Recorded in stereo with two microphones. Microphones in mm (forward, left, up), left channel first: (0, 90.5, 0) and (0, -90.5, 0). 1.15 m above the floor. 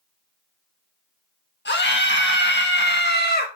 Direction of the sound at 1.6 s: 80° left.